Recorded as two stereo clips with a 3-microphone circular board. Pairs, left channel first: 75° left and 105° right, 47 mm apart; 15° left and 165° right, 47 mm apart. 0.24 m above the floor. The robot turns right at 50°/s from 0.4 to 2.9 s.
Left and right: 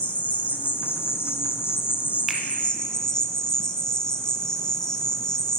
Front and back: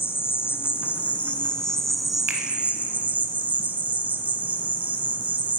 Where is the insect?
20° left, 1.1 m; by 5.6 s 145° left, 1.1 m.